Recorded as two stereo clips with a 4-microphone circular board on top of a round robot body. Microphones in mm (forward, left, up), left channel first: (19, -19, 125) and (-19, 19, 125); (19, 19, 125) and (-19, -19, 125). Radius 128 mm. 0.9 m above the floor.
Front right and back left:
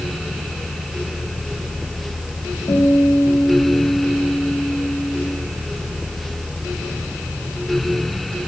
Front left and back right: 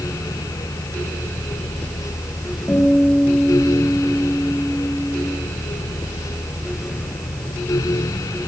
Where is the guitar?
10° right, 3.5 m.